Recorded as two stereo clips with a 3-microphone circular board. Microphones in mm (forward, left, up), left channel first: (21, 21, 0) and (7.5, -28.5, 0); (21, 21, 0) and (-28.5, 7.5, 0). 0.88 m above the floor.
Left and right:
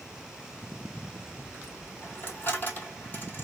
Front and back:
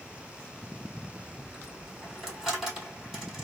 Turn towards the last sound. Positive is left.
turn(degrees=110)